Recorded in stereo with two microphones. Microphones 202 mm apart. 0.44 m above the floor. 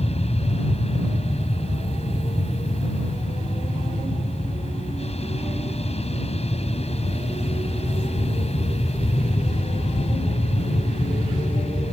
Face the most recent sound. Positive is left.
turn(degrees=35)  # may be behind; listen again after turning